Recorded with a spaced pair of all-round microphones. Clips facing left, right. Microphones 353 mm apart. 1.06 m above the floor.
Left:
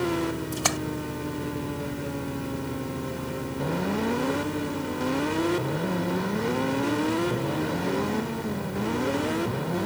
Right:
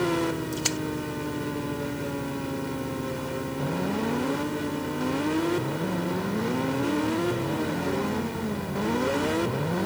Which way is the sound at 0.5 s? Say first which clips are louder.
Even; 75° left (ahead or behind).